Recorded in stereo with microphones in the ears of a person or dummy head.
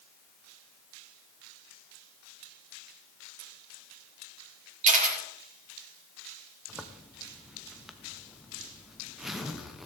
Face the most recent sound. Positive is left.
turn(degrees=0)  # may be behind; listen again after turning